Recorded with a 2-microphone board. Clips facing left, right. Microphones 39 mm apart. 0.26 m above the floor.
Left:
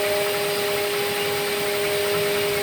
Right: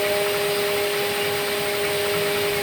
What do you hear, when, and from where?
Only background noise.